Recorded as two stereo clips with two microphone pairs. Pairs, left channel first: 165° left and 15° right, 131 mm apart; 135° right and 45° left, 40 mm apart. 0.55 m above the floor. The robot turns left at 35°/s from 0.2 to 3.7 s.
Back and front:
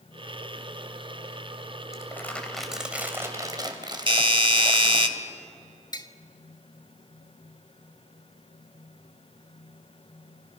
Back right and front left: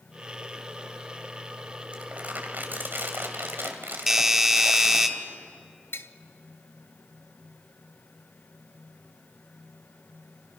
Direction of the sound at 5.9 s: 135° right.